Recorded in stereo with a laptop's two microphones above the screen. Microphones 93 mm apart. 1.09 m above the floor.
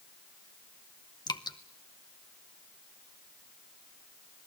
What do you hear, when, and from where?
1.3 s dripping: 50° left (ahead or behind), 0.9 m